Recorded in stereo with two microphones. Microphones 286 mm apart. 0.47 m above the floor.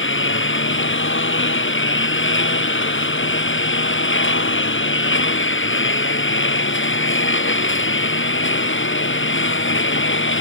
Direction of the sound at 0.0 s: 45° left (ahead or behind).